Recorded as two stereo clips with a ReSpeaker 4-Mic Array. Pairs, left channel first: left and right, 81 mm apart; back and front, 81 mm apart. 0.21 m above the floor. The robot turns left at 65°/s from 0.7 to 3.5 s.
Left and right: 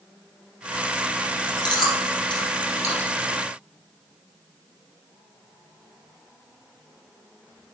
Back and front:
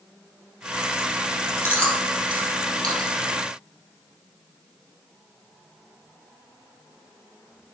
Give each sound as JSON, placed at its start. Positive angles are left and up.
{"t": 1.6, "sound": "chewing", "azimuth_deg": 125, "distance_m": 5.5}